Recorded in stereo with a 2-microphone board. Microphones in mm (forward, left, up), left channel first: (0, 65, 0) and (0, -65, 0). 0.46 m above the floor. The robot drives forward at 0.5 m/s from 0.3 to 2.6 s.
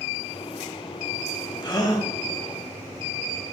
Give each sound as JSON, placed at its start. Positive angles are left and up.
{"t": 1.6, "sound": "a gasp", "side_deg": 35, "distance_m": 2.5}